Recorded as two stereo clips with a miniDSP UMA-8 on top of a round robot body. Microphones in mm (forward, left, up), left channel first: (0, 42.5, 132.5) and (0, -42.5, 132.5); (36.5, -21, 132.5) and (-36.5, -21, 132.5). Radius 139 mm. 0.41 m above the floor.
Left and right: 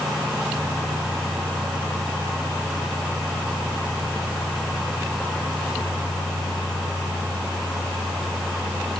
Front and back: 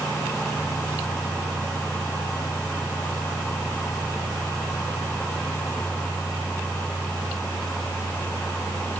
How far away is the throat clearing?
No throat clearing in this recording.